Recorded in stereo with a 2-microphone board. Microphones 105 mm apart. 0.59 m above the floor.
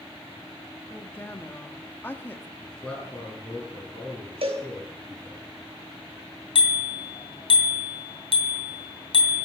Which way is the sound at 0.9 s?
20° left (ahead or behind).